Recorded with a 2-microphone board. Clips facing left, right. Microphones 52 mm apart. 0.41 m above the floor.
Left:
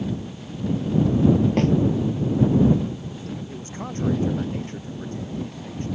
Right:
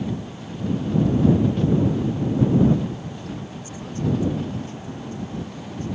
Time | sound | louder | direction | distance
1.6 | a snare drum | left 1 dB | 75° left (ahead or behind) | ?
3.5 | a man speaking | left 1 dB | 45° left (ahead or behind) | ?